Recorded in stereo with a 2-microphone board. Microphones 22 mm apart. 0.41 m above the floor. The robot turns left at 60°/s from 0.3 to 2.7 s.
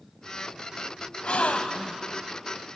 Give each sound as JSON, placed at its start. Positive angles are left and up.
{"t": 1.2, "sound": "a gasp", "azimuth_deg": 95, "distance_m": 1.2}